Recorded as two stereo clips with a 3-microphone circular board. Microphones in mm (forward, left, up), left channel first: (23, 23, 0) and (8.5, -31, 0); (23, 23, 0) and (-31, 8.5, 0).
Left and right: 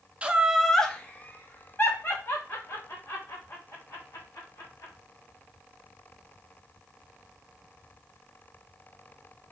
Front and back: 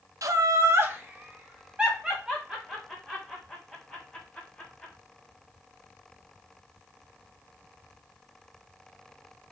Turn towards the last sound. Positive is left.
turn(degrees=110)